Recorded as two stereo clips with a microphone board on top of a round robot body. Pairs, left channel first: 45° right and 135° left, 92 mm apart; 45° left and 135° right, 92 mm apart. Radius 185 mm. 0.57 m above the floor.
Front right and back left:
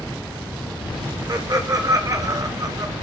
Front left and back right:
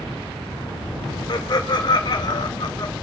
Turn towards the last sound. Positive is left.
turn(degrees=85)